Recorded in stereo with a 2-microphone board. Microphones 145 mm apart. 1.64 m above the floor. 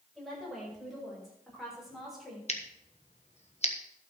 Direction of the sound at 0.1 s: Centre (ahead or behind).